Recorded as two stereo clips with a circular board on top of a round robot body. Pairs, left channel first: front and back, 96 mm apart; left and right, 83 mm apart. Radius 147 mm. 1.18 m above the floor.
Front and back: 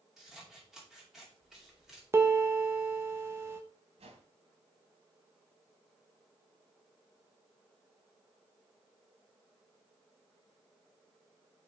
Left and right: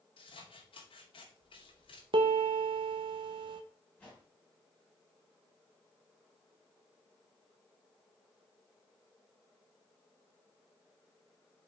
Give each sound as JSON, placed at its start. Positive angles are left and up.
{"t": 0.2, "sound": "scissors", "azimuth_deg": 95, "distance_m": 2.5}
{"t": 2.1, "sound": "a piano", "azimuth_deg": -115, "distance_m": 0.9}
{"t": 4.0, "sound": "a whoosh", "azimuth_deg": 165, "distance_m": 2.5}